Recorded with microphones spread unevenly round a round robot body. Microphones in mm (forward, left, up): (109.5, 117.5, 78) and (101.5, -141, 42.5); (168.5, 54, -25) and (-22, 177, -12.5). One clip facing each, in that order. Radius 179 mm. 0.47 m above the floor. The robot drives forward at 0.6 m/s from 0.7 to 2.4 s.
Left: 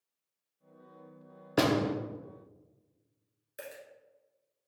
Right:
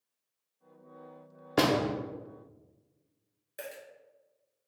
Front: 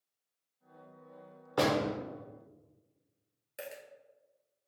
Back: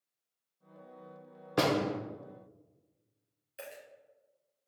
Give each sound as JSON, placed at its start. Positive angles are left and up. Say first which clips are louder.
{"t": 1.6, "sound": "a door slam", "louder": "even, back 1 dB", "azimuth_deg": -170, "distance_m": 0.5}
{"t": 3.6, "sound": "a dropped coin", "louder": "right 2 dB, front 2 dB", "azimuth_deg": 5, "distance_m": 1.8}